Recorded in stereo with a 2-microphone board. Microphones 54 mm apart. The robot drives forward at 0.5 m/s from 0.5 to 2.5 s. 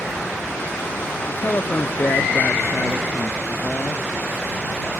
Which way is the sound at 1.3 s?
40° left (ahead or behind).